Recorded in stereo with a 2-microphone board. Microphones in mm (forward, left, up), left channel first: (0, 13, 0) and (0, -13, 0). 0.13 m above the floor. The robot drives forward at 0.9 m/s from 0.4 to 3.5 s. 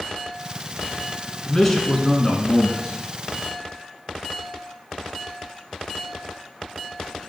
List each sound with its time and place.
1.4 s a man speaking: 10° left (ahead or behind), 1.5 m